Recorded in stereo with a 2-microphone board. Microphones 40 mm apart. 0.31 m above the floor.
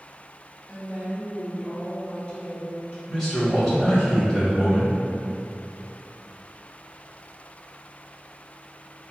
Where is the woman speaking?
20° right (ahead or behind), 1.2 m; by 3.0 s 30° left (ahead or behind), 1.4 m.